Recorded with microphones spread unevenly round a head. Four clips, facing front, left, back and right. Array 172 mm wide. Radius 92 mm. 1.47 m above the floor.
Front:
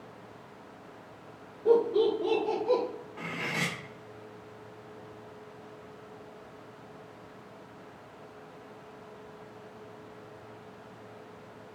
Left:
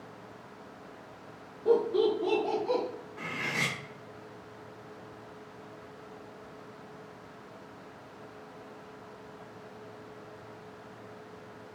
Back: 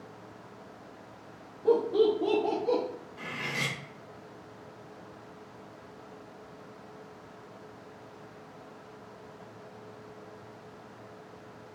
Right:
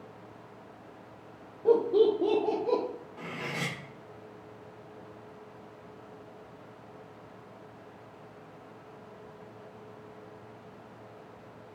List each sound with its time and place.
1.6 s laughter: 95° right, 1.3 m; by 2.8 s 135° right, 0.6 m
3.2 s cutlery clinking: 45° right, 0.7 m